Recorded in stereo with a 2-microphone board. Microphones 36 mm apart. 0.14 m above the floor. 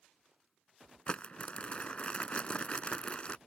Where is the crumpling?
35° left (ahead or behind).